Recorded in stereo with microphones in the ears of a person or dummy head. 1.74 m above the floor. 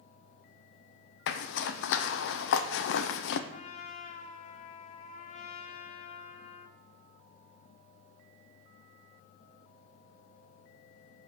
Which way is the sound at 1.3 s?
65° left (ahead or behind).